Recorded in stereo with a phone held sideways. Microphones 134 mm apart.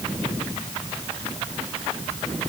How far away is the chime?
I don't hear a chime.